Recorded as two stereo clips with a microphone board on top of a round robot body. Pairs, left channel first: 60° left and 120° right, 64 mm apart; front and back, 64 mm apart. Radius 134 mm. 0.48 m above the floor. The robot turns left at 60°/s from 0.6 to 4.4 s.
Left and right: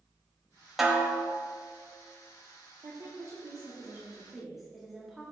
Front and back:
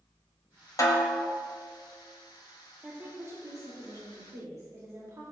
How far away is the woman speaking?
About 2.5 m.